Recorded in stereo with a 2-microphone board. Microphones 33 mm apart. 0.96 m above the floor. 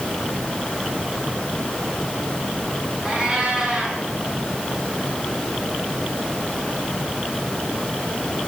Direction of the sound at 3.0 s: 20° right (ahead or behind).